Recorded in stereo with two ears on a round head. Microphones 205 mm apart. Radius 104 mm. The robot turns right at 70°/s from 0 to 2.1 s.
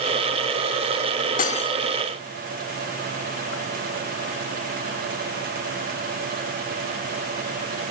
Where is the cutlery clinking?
35° left (ahead or behind), 0.7 m; by 1.8 s 15° left (ahead or behind), 0.7 m.